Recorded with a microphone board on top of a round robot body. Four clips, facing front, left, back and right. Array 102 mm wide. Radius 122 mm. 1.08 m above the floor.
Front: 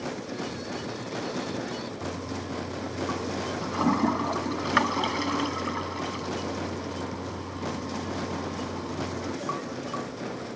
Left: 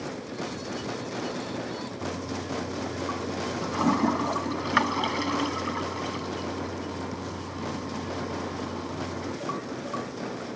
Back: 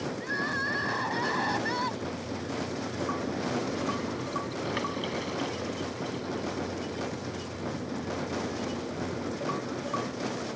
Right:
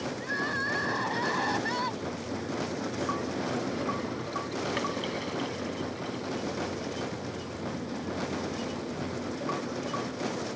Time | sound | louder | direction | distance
0.2 | crying | right 3 dB, back 2 dB | 140° right | ?
2.0 | a toilet flushing | left 2 dB, front 1 dB | 45° left | ?